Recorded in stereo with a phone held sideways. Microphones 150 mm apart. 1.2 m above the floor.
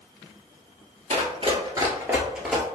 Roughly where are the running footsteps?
Right.